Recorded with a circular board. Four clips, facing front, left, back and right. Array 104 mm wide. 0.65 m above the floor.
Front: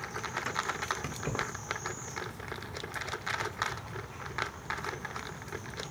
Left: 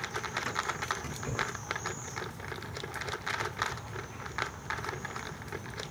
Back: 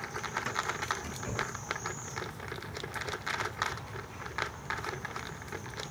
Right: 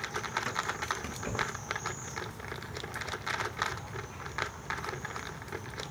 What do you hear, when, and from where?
1.0 s keys jangling: 20° right, 0.9 m